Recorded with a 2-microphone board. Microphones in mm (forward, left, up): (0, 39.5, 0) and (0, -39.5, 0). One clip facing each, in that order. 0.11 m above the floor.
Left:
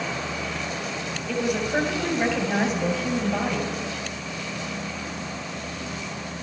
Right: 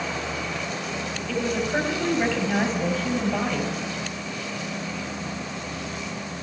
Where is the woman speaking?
10° left (ahead or behind), 3 m.